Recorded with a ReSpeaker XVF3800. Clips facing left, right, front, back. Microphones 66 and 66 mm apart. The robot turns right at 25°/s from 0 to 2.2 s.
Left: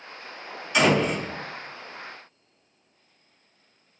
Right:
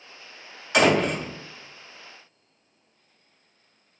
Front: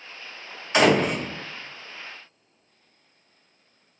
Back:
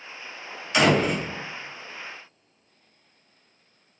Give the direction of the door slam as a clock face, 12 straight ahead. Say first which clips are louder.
Right 1 dB, front 1 dB; 2 o'clock.